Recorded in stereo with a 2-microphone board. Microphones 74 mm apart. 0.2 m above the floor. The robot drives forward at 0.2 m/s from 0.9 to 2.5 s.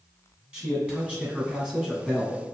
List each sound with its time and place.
0.5 s a man speaking: 15° right (ahead or behind), 2.0 m